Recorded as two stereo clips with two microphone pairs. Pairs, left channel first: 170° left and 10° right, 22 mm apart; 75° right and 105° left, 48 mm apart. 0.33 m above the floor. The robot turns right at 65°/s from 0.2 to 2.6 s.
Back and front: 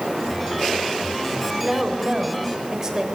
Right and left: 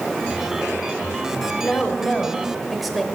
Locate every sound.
1.6 s a woman speaking: 45° right, 0.9 m; by 3.0 s 20° left, 0.9 m